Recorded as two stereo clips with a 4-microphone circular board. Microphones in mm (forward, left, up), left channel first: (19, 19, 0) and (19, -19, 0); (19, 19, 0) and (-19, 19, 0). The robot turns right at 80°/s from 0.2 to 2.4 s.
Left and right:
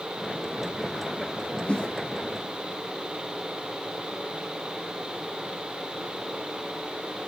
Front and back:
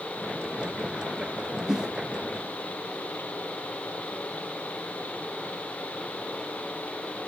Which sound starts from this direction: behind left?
A whoosh, at 1.7 s.